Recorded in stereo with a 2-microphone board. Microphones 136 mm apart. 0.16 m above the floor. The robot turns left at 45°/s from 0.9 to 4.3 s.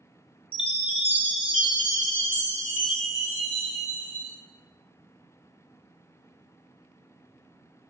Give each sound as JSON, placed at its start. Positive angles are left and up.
{"t": 0.5, "sound": "a chime", "azimuth_deg": 130, "distance_m": 0.7}